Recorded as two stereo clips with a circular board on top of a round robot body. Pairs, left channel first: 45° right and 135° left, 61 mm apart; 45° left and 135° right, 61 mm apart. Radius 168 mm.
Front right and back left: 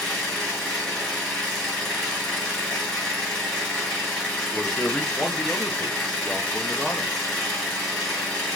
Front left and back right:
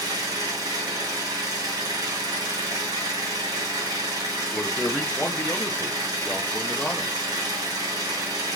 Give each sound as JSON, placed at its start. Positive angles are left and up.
{"t": 0.0, "sound": "an engine running", "azimuth_deg": -120, "distance_m": 0.9}
{"t": 2.7, "sound": "a whoosh", "azimuth_deg": 50, "distance_m": 1.1}
{"t": 4.5, "sound": "a man speaking", "azimuth_deg": 10, "distance_m": 0.7}